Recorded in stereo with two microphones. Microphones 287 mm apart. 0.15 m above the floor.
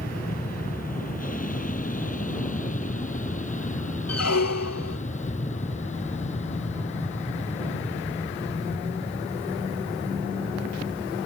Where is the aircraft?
30° left (ahead or behind); by 11.3 s 25° left (ahead or behind).